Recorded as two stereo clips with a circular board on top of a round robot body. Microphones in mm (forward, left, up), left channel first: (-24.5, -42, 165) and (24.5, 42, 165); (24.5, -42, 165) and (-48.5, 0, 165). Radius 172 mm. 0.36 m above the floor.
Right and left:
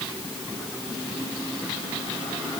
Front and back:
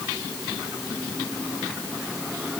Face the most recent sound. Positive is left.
No sound to turn to.